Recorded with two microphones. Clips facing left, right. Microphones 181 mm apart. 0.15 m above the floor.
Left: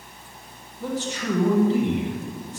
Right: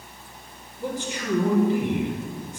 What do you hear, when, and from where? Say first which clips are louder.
0.8 s a man speaking: left 2 dB; 25° right (ahead or behind), 4.5 m